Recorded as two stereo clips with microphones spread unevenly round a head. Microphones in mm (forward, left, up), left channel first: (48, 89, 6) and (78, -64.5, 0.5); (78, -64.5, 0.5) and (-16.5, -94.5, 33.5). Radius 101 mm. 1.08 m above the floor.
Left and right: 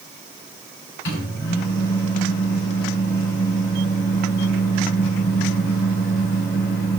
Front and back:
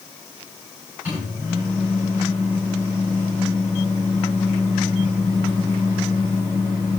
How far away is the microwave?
About 8 m.